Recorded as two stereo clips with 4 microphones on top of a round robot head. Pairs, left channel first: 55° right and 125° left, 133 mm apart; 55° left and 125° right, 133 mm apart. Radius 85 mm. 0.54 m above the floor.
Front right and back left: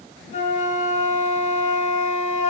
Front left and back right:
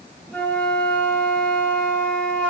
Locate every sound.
0.3 s a flute: 25° right, 1.6 m